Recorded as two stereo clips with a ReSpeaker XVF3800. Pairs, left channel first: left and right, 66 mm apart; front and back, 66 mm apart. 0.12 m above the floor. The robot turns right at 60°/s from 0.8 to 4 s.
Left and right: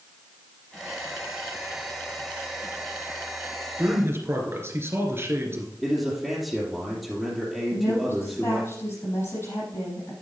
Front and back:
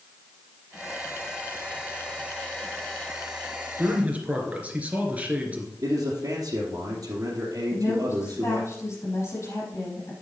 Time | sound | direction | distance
3.8 | a man speaking | 135° right | 2.5 m
5.8 | a man speaking | straight behind | 2.5 m
7.7 | a woman speaking | 45° left | 5 m